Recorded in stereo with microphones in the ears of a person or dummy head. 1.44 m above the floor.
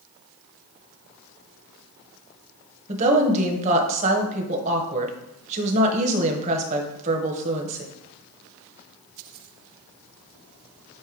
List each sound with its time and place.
2.9 s a woman speaking: 30° right (ahead or behind), 1.2 m